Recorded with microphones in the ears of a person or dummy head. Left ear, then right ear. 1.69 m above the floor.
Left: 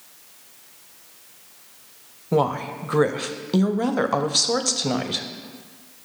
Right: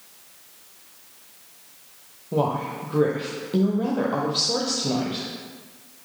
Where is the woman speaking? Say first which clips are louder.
Left 3 dB; 60° left (ahead or behind), 0.6 m.